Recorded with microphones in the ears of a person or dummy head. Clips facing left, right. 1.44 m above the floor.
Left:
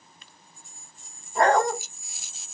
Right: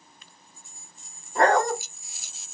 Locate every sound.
1.4 s a dog barking: 55° right (ahead or behind), 1.8 m